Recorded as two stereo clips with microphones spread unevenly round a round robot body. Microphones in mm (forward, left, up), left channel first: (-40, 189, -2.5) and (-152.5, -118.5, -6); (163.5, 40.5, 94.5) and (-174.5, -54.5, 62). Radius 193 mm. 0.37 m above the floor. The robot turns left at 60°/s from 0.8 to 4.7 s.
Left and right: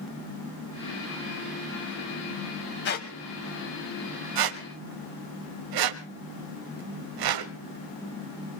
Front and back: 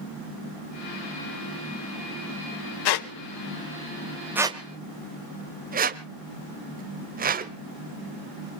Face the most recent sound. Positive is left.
turn(degrees=-100)